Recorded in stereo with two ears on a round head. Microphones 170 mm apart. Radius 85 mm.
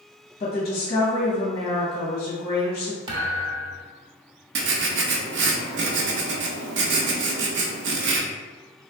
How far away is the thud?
About 0.7 m.